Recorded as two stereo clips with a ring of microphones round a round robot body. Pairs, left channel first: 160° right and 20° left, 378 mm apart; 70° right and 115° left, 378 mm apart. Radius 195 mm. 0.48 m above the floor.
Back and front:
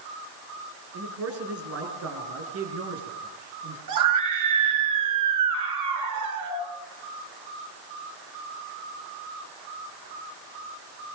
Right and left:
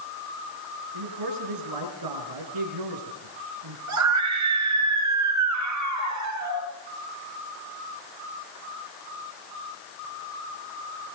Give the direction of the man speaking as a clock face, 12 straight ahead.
9 o'clock.